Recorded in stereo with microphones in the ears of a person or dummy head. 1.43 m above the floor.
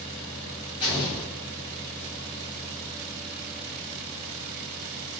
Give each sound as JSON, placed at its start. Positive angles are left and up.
{"t": 0.8, "sound": "an explosion", "side_deg": 20, "distance_m": 0.8}